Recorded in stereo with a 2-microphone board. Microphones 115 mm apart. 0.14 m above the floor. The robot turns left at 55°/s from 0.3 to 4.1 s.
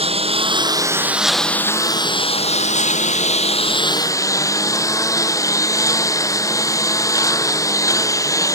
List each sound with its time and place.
0.0 s a lawn mower: 125° right; by 8.6 s 25° left